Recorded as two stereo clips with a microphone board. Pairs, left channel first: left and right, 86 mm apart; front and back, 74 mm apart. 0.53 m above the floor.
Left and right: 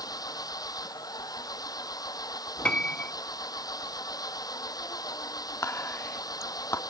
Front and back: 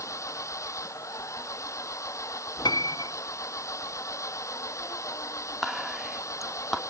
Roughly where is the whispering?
Left.